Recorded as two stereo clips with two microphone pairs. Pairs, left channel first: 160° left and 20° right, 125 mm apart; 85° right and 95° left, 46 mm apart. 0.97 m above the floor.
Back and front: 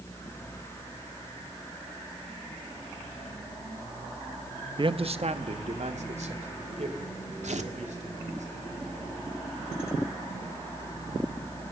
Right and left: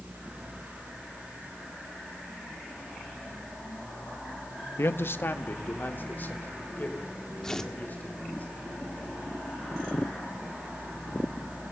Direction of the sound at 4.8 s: 65° right.